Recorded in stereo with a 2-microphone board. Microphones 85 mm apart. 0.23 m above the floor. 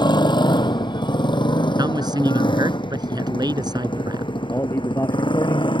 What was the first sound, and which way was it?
A motorcycle, 60° left (ahead or behind).